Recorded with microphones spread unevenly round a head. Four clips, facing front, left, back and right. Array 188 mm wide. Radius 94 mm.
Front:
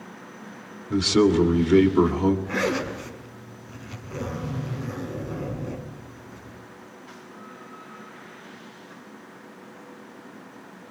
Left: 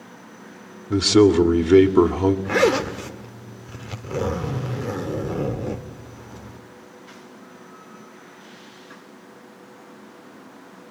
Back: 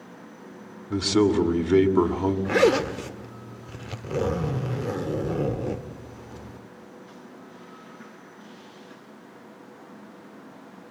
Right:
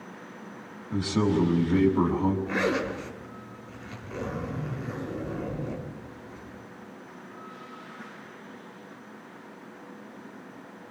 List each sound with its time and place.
0.9 s a man speaking: 85° left, 2.5 m
2.5 s a zipper: 135° left, 1.4 m